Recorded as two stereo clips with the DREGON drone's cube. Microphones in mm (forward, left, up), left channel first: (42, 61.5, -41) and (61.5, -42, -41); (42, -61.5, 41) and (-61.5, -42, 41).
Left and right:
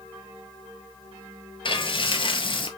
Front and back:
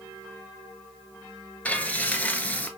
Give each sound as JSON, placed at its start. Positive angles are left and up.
{"t": 1.6, "sound": "frying", "azimuth_deg": 65, "distance_m": 0.8}